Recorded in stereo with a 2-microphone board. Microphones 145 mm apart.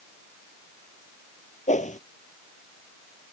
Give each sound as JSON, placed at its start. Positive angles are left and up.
{"t": 1.7, "sound": "a whoosh", "side_deg": 55}